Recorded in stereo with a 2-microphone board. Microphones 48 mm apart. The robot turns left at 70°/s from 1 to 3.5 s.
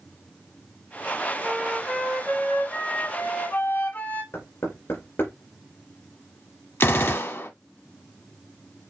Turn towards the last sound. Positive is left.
turn(degrees=60)  # may be behind; listen again after turning